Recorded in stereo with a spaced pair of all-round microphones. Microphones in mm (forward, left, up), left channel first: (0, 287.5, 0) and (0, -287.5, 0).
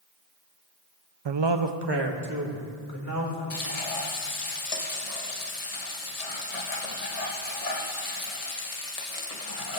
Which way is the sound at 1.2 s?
45° right (ahead or behind).